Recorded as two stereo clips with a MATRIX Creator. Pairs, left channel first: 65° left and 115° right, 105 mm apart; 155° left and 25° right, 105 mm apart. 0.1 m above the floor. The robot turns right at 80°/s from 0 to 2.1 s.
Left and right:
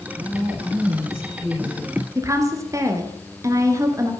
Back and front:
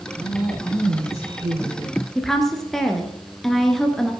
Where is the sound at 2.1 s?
120° right, 1.6 m.